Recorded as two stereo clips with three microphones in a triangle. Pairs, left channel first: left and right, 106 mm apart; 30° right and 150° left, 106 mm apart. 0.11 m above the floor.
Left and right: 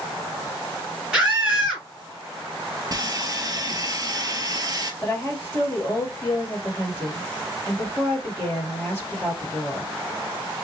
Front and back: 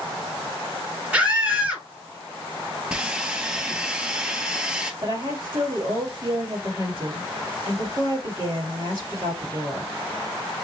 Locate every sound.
1.1 s a scream: 160° right, 1.7 m
2.9 s sawing: 130° right, 0.7 m
5.0 s a woman speaking: 155° left, 2 m